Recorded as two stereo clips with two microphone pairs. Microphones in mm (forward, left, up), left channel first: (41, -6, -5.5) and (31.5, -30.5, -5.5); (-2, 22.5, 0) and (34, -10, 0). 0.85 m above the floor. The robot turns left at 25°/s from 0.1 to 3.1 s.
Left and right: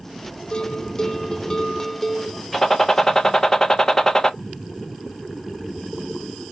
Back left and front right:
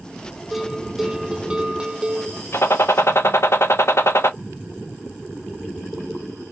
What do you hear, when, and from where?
0.5 s a bell: 40° left, 0.5 m; by 2.4 s 5° right, 0.5 m
2.5 s a gunshot: 155° left, 1.0 m; by 4.3 s 140° left, 1.0 m